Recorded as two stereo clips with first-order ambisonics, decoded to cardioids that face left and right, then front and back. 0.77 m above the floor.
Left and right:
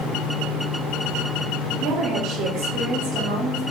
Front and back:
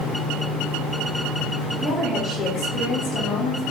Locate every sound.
1.8 s a woman speaking: 110° right, 0.9 m; by 3.6 s 20° right, 1.2 m